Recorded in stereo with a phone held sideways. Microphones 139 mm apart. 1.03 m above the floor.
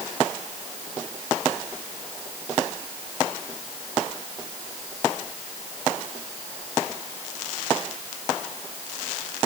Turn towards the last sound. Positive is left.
No sound to turn to.